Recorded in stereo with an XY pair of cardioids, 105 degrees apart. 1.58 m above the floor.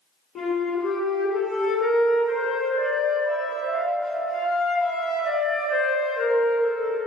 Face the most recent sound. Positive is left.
turn(degrees=60)